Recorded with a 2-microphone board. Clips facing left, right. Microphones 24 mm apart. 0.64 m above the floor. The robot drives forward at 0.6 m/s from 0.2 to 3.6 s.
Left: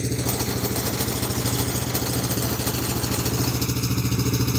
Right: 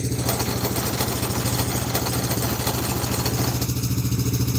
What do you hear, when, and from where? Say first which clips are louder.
0.0 s an engine running: right 1 dB; 15° left (ahead or behind); by 4.6 s 25° left (ahead or behind)